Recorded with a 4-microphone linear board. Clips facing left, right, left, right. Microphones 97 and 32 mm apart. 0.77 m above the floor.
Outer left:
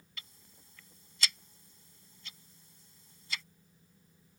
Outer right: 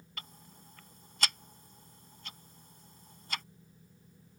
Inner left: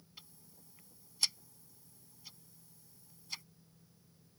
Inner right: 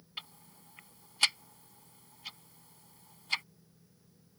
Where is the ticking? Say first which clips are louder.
Outer right 6 dB, inner right 13 dB; 55° right (ahead or behind).